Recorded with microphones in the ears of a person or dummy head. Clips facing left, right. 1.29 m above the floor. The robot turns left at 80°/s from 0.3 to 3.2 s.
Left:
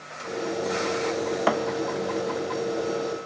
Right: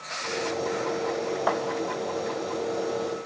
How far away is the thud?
About 1.2 m.